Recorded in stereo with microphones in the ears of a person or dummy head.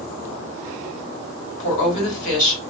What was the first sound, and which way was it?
A woman speaking, 45° left (ahead or behind).